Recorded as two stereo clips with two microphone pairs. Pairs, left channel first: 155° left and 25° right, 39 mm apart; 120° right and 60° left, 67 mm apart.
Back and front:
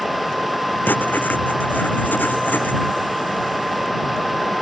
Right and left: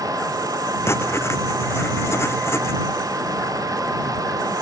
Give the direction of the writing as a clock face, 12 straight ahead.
6 o'clock.